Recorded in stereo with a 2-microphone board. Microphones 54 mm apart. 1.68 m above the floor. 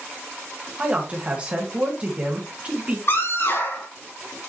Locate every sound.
0.8 s a man speaking: 25° right (ahead or behind), 1.8 m
3.1 s a scream: 55° left (ahead or behind), 3.5 m